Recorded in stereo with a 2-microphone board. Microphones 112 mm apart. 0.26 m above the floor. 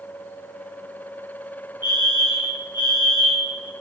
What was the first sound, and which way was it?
A fire alarm, 40° left (ahead or behind).